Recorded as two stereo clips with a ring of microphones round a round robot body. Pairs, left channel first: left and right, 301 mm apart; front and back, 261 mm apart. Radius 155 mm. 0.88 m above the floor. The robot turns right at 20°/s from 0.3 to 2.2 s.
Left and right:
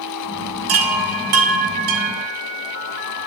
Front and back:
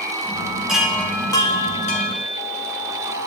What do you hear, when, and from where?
0.7 s a chime: 90° right, 1.6 m; by 2.3 s 60° right, 1.6 m